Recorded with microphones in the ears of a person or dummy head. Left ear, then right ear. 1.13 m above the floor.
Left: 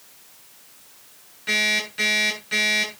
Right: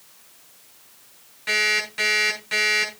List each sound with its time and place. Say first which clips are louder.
1.5 s an alarm clock: even; 30° right (ahead or behind), 8.5 m